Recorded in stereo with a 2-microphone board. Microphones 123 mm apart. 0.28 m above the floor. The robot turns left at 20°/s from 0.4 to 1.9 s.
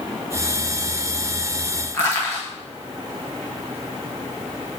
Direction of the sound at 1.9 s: 20° left (ahead or behind).